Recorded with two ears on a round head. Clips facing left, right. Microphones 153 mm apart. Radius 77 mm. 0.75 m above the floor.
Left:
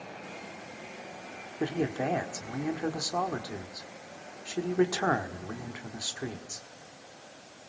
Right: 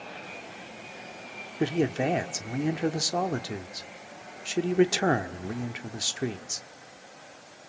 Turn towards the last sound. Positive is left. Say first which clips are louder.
# right 4 dB
turn(degrees=-25)  # may be behind; listen again after turning